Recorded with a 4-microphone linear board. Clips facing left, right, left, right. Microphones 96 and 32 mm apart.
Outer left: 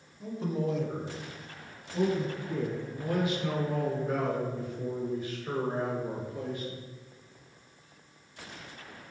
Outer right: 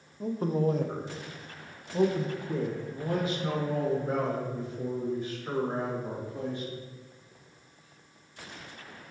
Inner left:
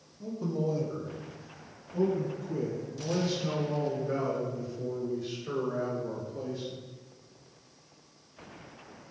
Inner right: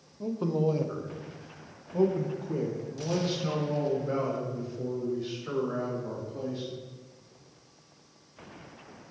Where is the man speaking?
45° right (ahead or behind), 0.7 m; by 6.8 s 35° right (ahead or behind), 4 m.